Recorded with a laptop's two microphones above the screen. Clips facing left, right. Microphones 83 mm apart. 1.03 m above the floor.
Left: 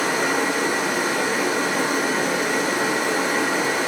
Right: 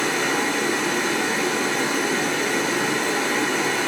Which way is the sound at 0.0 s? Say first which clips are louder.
Left 1 dB; 10° left (ahead or behind).